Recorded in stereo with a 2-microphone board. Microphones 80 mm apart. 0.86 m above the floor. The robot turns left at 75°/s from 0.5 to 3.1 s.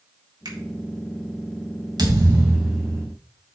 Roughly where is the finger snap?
Right.